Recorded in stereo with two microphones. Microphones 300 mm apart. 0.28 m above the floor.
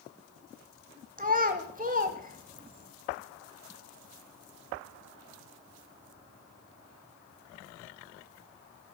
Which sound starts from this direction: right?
A child speaking, at 1.2 s.